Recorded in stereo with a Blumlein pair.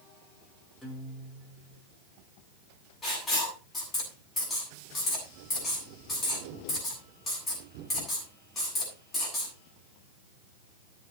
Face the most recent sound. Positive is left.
turn(degrees=15)